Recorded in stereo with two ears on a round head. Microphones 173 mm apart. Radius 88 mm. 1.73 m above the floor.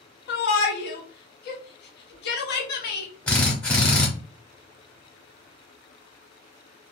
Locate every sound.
0.3 s a shout: 55° left (ahead or behind), 0.9 m
3.3 s a drill: 5° left (ahead or behind), 0.8 m